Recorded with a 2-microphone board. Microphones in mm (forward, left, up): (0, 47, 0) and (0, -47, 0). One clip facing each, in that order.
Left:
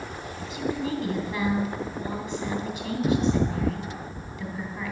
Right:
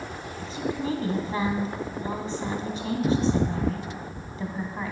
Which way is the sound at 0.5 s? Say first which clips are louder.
Even; 35° right (ahead or behind).